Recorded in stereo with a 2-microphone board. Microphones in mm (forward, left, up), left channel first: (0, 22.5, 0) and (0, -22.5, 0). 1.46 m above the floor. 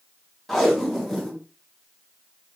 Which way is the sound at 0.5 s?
Centre (ahead or behind).